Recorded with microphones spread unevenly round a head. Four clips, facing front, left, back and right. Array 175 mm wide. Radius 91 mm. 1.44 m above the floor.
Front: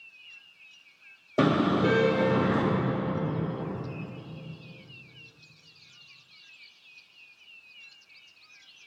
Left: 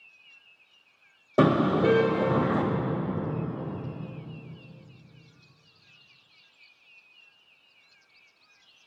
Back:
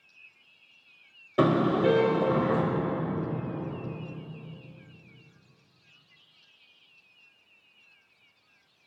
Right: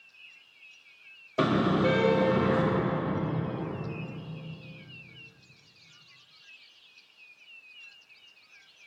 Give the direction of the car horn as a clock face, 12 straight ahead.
9 o'clock.